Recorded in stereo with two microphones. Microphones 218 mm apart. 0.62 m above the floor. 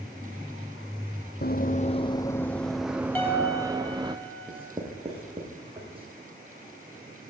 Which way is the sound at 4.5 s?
25° right (ahead or behind).